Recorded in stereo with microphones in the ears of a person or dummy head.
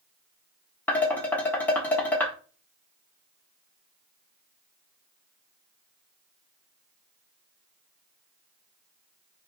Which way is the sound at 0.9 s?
10° left (ahead or behind).